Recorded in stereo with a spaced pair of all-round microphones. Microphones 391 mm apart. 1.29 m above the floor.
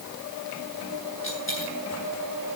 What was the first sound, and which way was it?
A dropped coin, 30° left (ahead or behind).